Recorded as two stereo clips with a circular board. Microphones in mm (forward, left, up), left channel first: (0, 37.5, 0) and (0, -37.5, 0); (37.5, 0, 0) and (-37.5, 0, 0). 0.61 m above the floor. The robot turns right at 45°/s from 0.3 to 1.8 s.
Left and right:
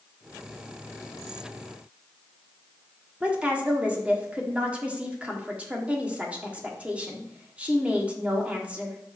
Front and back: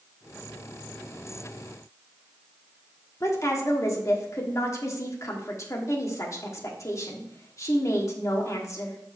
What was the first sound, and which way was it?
A woman speaking, 25° right.